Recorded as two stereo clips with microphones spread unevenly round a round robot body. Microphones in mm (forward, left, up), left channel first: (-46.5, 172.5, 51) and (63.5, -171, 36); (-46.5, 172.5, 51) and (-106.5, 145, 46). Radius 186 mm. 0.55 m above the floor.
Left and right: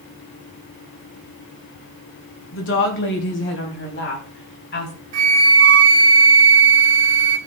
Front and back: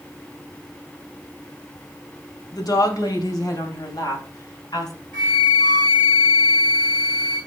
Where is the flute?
50° right, 3.5 m.